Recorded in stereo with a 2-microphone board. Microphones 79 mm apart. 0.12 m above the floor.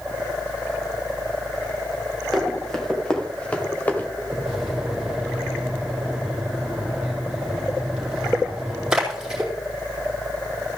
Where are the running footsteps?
5° left (ahead or behind), 3 m; by 4.1 s 25° left (ahead or behind), 2.5 m.